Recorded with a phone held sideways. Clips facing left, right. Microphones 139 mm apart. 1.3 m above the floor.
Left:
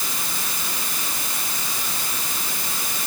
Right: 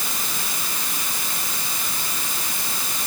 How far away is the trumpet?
No trumpet in this recording.